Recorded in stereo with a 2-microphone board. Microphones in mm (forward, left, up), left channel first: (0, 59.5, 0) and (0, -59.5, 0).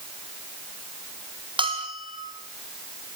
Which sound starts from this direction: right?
A bell, at 1.6 s.